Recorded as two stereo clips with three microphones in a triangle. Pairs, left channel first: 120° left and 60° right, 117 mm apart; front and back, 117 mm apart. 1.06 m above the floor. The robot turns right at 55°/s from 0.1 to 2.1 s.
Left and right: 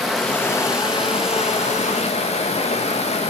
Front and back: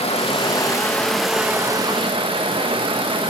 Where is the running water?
30° left, 1.1 m; by 3.3 s 140° left, 1.1 m.